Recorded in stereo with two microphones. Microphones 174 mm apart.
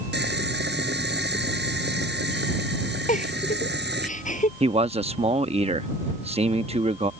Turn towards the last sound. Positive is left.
turn(degrees=-35)  # may be behind; listen again after turning